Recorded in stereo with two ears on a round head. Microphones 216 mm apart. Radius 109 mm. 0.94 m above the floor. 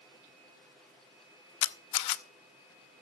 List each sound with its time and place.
1.6 s a camera shutter: 90° left, 0.7 m